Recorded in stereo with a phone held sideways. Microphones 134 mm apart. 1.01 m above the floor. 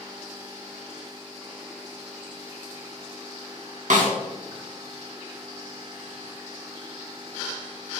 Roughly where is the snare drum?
Right.